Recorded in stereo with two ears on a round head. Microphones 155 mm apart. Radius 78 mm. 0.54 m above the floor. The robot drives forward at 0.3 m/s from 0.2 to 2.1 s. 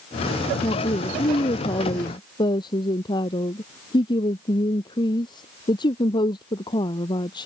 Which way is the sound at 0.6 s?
25° left (ahead or behind).